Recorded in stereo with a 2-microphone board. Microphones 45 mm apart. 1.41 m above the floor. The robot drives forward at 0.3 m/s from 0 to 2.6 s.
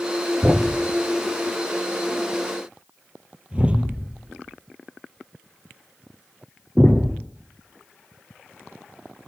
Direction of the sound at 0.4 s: 30° right (ahead or behind).